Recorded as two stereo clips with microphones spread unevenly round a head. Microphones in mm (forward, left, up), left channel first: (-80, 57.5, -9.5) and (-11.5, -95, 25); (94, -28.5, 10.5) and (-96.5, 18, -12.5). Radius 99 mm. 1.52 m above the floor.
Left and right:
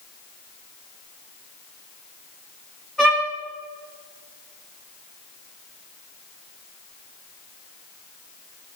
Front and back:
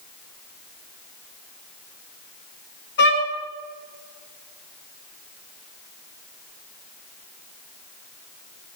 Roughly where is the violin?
Ahead left.